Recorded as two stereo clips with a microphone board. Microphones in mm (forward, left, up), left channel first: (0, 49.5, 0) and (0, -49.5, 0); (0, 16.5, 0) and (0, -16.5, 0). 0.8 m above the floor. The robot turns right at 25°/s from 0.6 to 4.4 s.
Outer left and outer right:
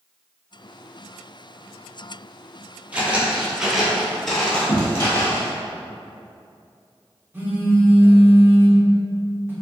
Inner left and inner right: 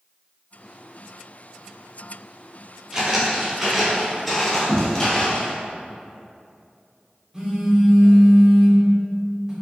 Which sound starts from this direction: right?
A phone buzzing, at 7.3 s.